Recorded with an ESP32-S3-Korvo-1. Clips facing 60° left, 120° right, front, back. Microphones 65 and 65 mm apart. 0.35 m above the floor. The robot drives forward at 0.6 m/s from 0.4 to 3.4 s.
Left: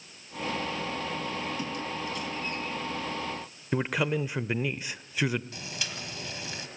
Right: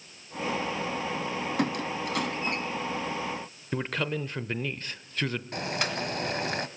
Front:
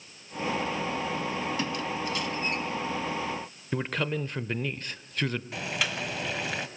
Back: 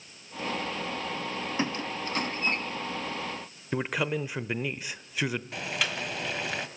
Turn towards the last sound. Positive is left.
turn(degrees=-90)